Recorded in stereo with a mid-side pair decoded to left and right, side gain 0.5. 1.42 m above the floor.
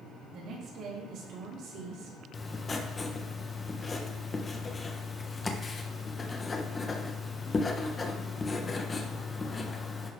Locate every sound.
0.3 s a woman speaking: 60° right, 3.5 m; by 2.2 s 75° right, 3 m
2.3 s writing: 30° left, 1.2 m